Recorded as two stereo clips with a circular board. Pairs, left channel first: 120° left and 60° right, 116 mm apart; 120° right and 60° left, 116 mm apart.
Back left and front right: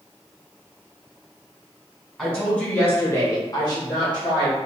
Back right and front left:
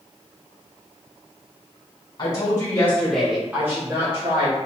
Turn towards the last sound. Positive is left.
turn(degrees=80)